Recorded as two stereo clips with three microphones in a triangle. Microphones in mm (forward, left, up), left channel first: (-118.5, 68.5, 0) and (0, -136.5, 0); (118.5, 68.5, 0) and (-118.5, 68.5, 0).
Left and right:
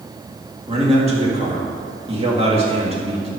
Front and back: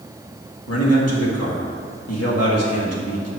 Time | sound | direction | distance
0.7 | a man speaking | 5° left | 2.5 m